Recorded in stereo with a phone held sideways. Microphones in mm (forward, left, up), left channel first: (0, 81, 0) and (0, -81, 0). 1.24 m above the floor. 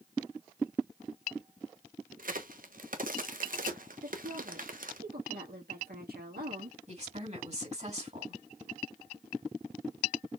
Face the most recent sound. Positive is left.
turn(degrees=-50)  # may be behind; listen again after turning